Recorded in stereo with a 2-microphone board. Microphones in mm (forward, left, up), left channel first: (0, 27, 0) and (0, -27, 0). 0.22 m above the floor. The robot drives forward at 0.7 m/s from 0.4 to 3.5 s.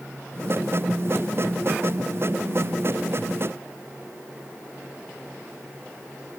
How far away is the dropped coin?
I don't hear a dropped coin.